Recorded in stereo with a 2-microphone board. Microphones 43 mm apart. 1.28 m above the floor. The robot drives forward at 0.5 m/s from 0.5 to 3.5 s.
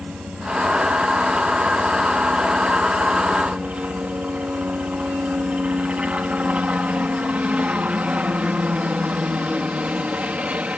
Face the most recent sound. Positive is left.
turn(degrees=-30)  # may be behind; listen again after turning